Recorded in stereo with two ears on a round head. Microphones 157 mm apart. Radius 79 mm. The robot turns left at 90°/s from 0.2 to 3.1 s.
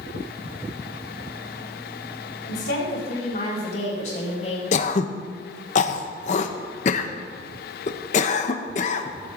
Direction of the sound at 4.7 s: 45° left (ahead or behind).